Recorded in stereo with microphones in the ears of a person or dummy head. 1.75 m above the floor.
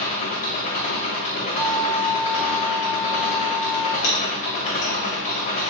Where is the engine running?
30° left (ahead or behind), 1.3 m.